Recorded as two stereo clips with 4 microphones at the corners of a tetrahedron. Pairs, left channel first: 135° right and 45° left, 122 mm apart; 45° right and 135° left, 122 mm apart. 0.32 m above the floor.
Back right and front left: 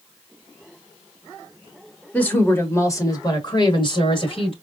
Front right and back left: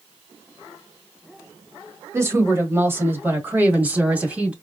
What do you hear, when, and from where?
2.1 s a woman speaking: 160° left, 1.6 m; by 4.5 s 150° right, 2 m